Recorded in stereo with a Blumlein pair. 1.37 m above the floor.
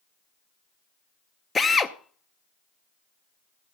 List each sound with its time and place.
1.6 s a drill: 15° left, 0.8 m